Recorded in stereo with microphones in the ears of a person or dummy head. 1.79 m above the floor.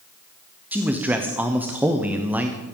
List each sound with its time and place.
0.7 s a man speaking: 5° right (ahead or behind), 0.9 m